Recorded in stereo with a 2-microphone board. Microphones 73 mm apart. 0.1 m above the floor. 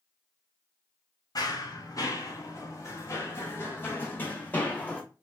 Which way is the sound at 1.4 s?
55° left (ahead or behind).